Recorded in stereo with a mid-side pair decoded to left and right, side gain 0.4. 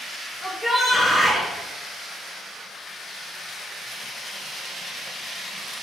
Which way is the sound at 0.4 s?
10° left.